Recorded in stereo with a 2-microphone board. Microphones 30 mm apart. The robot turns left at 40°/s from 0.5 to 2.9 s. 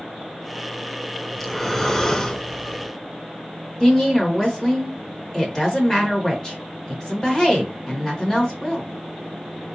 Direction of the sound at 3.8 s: 20° left (ahead or behind).